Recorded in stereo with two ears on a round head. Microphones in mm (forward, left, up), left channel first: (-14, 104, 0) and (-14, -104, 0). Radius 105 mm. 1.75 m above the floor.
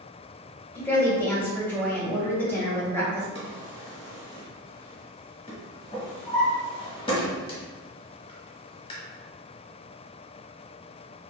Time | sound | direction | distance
0.8 | a woman speaking | 10° left (ahead or behind) | 1.8 m
3.4 | a drawer | 25° left (ahead or behind) | 1.1 m